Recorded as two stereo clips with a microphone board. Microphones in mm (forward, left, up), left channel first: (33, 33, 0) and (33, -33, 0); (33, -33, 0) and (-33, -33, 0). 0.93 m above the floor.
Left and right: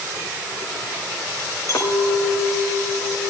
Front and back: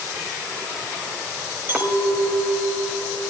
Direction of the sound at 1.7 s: 125° left.